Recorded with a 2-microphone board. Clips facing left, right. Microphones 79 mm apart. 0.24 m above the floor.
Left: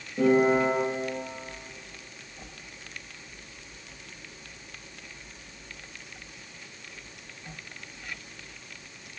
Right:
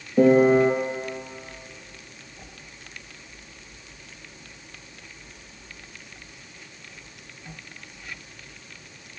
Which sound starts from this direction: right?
A piano, at 0.2 s.